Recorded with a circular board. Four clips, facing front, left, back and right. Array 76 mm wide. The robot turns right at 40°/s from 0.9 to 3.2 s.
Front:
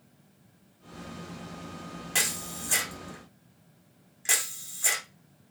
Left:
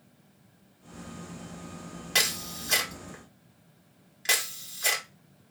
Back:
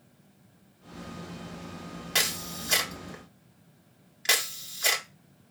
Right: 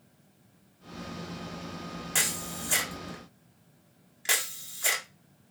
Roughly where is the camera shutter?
Behind left.